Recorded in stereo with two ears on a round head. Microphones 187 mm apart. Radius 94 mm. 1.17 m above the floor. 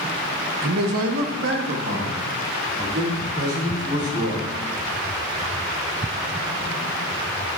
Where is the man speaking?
80° right, 0.8 m; by 4.5 s 45° right (ahead or behind), 4 m.